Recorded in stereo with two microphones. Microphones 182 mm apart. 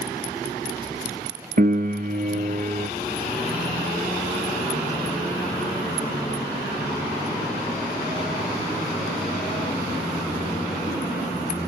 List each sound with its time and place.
1.6 s a piano: 55° right (ahead or behind), 0.6 m